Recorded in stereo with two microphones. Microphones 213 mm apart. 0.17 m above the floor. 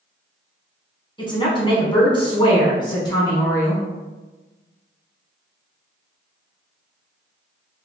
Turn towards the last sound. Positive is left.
turn(degrees=15)  # may be behind; listen again after turning